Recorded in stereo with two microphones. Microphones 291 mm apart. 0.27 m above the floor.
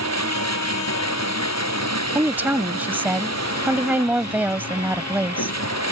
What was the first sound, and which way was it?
Running water, 60° left (ahead or behind).